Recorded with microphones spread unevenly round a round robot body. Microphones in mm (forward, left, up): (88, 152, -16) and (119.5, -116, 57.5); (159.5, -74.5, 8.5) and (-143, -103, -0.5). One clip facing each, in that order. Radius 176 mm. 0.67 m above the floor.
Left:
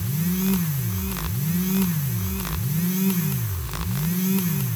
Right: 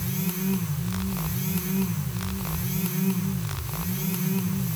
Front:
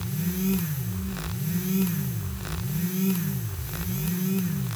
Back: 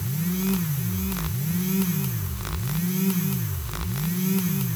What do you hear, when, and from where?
Only background noise.